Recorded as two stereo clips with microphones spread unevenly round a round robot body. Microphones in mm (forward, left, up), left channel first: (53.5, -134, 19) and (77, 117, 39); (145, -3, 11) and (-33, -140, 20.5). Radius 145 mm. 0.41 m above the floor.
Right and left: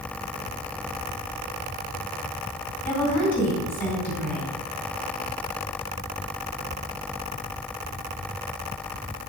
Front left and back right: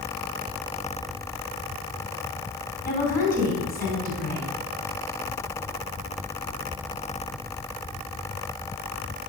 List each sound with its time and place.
2.9 s a woman speaking: 10° right, 3.5 m